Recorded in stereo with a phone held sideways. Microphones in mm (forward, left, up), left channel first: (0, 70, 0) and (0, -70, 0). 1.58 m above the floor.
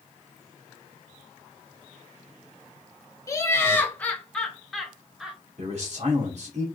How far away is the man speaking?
About 1.9 m.